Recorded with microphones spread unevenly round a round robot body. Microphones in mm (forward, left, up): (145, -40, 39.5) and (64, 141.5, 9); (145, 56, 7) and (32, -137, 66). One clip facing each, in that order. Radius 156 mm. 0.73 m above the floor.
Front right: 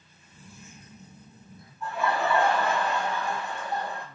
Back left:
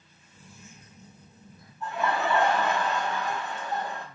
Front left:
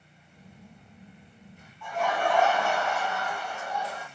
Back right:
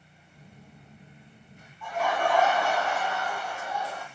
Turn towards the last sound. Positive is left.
turn(degrees=125)